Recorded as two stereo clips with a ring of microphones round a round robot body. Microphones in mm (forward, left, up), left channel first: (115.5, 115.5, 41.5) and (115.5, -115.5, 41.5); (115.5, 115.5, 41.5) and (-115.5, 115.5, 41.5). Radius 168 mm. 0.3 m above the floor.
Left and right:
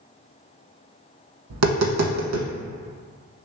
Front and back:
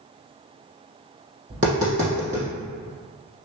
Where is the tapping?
110° right, 0.6 m.